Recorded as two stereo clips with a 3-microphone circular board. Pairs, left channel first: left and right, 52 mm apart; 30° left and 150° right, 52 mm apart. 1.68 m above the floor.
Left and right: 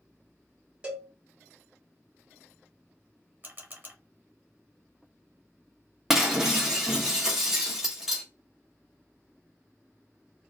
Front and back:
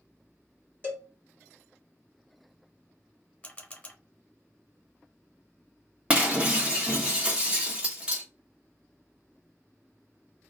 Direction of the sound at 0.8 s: 145° right.